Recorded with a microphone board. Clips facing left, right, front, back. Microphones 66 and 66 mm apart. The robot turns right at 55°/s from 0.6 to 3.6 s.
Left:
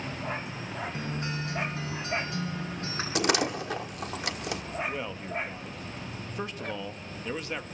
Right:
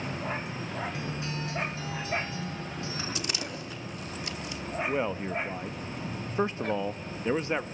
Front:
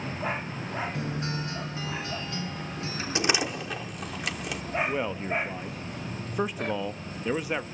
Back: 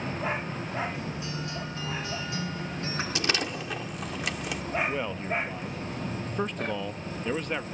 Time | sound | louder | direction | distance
0.9 | a guitar | left 1 dB, front 3 dB | 30° left | 6.5 m
3.1 | a door slam | left 9 dB, front 5 dB | 65° left | 1.3 m
4.9 | a man speaking | right 5 dB, front 1 dB | 70° right | 0.5 m